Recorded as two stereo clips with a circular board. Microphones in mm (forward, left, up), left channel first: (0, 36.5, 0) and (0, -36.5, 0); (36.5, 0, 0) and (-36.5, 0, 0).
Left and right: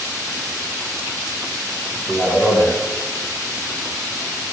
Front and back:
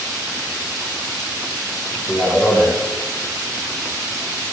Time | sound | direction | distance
2.1 | a man speaking | 100° right | 1.2 m